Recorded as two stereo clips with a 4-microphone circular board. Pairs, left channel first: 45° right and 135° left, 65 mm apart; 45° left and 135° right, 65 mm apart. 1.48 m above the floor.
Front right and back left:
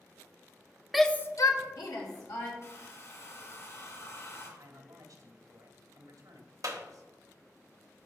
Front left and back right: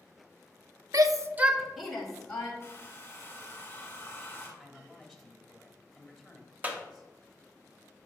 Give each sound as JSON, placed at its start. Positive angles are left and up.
{"t": 0.9, "sound": "a shout", "azimuth_deg": -140, "distance_m": 0.7}
{"t": 2.6, "sound": "a hair dryer", "azimuth_deg": -10, "distance_m": 2.0}
{"t": 4.6, "sound": "a man speaking", "azimuth_deg": 145, "distance_m": 2.0}
{"t": 6.6, "sound": "a clap", "azimuth_deg": 160, "distance_m": 0.9}